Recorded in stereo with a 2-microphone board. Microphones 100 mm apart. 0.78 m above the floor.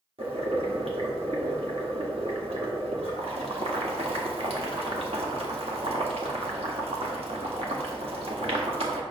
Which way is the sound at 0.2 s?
75° right (ahead or behind).